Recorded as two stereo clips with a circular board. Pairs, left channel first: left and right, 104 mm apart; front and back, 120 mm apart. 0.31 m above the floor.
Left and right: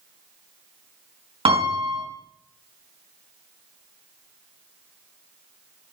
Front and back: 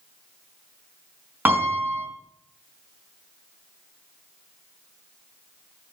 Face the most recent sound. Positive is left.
turn(degrees=-110)